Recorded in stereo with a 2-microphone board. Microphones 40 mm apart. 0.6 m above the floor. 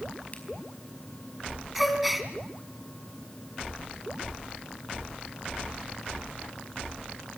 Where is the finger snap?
40° left (ahead or behind), 4.5 m.